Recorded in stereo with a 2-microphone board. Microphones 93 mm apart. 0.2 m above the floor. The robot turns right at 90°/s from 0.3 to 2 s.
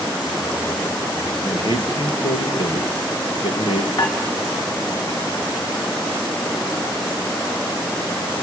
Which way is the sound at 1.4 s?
45° left.